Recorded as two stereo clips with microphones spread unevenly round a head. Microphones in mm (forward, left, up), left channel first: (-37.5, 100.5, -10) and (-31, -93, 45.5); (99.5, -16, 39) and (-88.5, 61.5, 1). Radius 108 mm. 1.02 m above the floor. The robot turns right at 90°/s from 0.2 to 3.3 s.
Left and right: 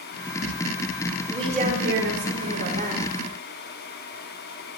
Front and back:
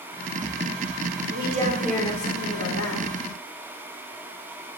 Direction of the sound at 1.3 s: 170° right.